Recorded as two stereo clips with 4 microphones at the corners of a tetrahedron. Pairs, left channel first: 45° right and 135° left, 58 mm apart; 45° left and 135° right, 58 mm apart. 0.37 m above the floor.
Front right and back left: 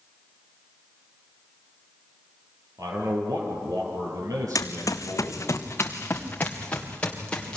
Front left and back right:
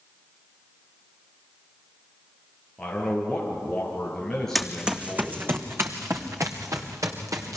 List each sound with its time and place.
2.8 s a man speaking: 125° left, 7 m
4.5 s running footsteps: 50° right, 1.6 m; by 7.6 s 120° right, 4 m